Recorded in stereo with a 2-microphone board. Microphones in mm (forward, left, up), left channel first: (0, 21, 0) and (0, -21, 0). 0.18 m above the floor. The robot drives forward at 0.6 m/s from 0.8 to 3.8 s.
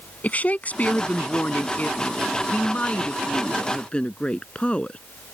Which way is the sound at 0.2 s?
40° left (ahead or behind).